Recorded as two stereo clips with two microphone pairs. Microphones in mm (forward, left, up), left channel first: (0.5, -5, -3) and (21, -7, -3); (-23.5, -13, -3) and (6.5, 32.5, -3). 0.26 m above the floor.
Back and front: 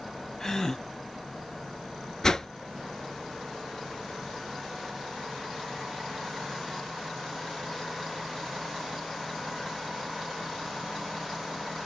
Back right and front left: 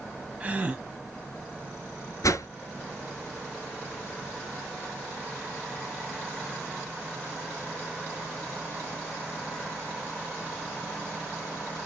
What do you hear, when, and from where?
0.4 s a gasp: 110° left, 1.0 m
2.2 s a whoosh: 120° right, 0.7 m